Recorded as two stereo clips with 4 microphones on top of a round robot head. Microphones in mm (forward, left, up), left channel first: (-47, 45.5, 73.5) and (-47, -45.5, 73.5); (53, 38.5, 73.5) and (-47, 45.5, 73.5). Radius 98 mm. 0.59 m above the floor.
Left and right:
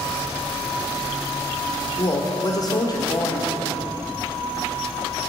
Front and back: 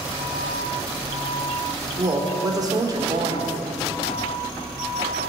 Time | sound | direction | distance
2.0 | a woman speaking | 130° left | 2 m